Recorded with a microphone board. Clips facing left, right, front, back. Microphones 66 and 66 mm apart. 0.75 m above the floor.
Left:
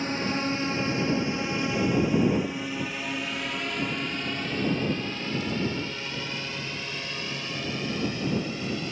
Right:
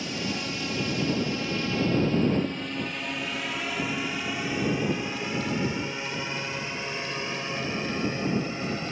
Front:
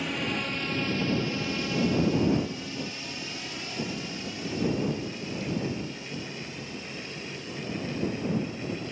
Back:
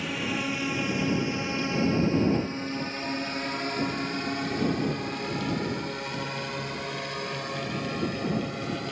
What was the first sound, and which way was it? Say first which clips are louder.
A drone: left 4 dB, back 1 dB; 95° left.